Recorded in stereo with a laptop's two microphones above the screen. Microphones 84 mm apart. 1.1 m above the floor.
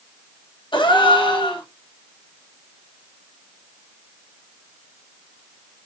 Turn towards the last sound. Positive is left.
turn(degrees=70)  # may be behind; listen again after turning